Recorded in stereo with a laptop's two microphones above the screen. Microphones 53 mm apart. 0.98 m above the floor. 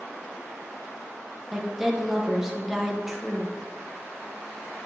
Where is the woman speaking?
10° right (ahead or behind), 1.0 m.